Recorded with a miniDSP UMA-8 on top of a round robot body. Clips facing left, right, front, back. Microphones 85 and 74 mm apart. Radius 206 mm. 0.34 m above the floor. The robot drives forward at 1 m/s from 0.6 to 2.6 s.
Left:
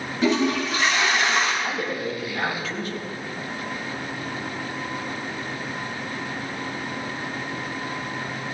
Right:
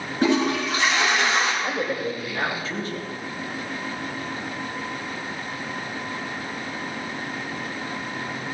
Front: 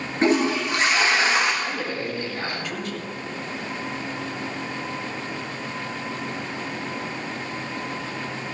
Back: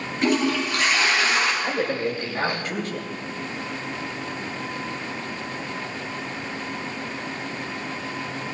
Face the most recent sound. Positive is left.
turn(degrees=-140)